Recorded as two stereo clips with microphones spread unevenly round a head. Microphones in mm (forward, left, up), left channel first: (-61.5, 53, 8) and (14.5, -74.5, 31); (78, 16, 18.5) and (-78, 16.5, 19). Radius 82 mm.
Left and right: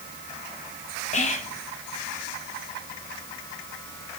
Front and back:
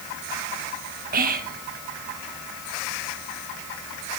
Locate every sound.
1.1 s whispering: 155° left, 1.4 m